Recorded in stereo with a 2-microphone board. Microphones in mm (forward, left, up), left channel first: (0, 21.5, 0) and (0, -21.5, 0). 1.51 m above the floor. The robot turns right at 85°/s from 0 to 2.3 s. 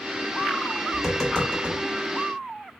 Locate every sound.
0.9 s tapping: 10° right (ahead or behind), 2.5 m; by 1.8 s 55° left (ahead or behind), 2.5 m